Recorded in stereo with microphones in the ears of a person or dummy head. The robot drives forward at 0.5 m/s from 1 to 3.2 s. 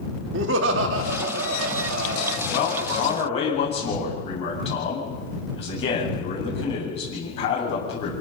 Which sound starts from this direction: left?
A man speaking, at 2.5 s.